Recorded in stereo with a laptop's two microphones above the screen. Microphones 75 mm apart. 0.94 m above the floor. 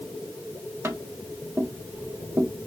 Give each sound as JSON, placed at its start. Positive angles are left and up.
{"t": 0.8, "sound": "tapping", "side_deg": -30, "distance_m": 1.4}